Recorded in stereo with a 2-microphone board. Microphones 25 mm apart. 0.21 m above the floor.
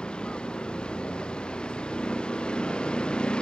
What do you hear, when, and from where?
0.0 s a vehicle: 35° left (ahead or behind)